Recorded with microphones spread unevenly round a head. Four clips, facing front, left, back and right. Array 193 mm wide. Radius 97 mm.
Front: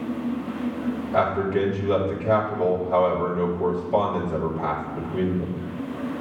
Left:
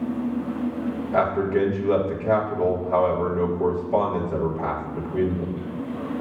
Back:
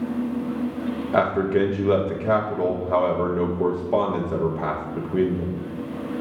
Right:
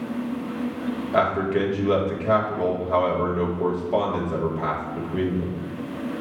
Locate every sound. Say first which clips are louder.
1.1 s a man speaking: even, back 2 dB; 170° right, 1.4 m